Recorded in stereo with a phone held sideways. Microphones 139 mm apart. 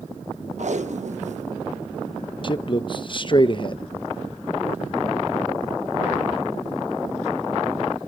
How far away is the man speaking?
About 0.8 m.